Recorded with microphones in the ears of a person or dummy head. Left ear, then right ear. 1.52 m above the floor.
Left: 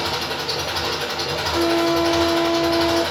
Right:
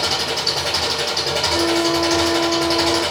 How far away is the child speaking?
I don't hear a child speaking.